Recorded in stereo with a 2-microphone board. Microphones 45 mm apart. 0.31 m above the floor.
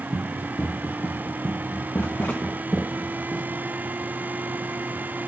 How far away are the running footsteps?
About 2 m.